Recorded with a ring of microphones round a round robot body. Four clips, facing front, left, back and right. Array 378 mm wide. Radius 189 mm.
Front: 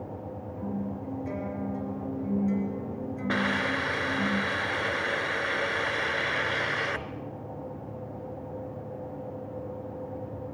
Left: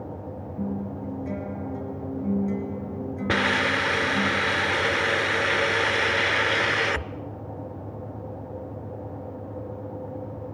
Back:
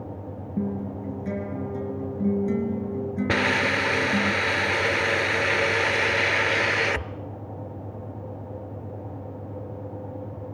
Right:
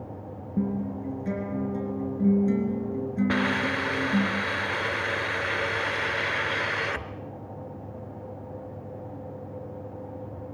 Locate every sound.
0.6 s a guitar: 135° right, 4 m
3.3 s a hiss: 140° left, 0.6 m